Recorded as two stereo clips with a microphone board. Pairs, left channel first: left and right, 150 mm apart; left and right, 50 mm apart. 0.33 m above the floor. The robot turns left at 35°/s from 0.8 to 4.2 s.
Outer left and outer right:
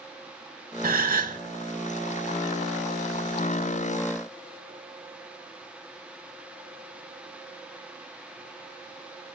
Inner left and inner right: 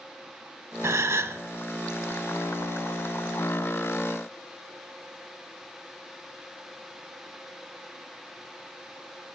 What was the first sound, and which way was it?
A gasp, 80° right.